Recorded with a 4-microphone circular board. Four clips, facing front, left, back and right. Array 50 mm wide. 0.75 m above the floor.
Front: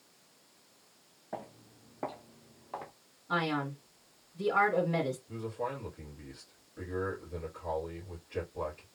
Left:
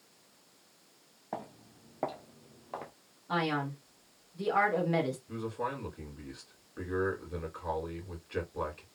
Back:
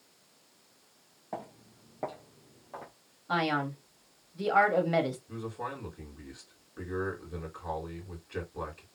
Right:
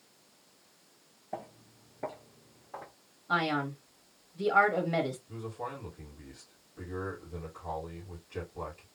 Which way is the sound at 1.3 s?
115° left.